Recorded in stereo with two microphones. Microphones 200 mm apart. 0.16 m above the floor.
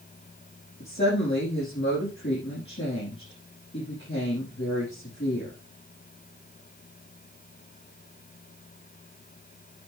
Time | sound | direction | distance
0.8 | a woman speaking | 60° left (ahead or behind) | 5.5 m